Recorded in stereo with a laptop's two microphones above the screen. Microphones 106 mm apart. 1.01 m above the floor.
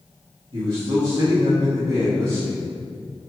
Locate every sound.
0.5 s a man speaking: 40° right (ahead or behind), 1.9 m